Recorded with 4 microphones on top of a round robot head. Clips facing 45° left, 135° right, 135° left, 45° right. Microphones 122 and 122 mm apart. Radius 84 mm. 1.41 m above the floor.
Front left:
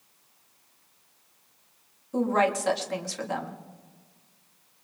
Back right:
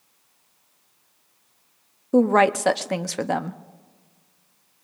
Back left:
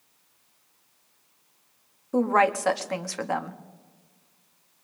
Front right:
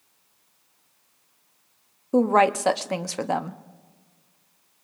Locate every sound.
2.1 s a woman speaking: 110° right, 0.7 m